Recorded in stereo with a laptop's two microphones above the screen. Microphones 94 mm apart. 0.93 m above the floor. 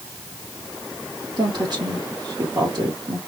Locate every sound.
1.4 s a woman speaking: 50° right (ahead or behind), 1.8 m